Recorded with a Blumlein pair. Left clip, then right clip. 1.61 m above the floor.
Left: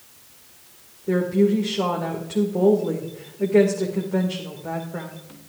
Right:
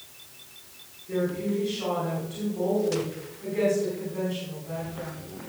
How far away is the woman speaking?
About 2 m.